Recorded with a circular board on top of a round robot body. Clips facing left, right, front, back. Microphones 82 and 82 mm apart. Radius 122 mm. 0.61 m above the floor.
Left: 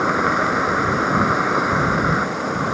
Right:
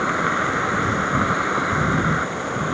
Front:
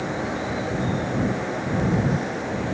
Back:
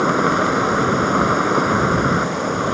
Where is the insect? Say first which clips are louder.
Left 3 dB, back 10 dB; 165° left.